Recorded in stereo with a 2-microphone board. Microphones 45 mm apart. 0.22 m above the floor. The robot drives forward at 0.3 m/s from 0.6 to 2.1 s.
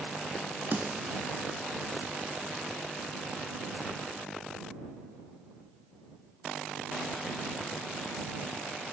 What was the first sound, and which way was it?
A snare drum, 55° right (ahead or behind).